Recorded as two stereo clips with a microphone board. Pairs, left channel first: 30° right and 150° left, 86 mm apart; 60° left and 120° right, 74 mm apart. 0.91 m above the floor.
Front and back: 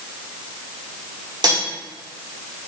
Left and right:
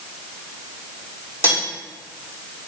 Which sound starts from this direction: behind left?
Cutlery clinking, at 1.4 s.